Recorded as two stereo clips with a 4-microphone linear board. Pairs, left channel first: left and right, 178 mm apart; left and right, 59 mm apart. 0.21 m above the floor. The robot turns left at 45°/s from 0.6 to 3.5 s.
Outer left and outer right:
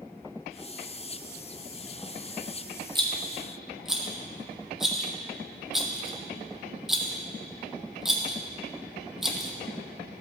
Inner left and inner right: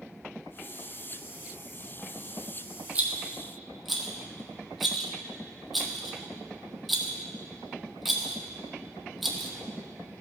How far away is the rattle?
About 1.3 m.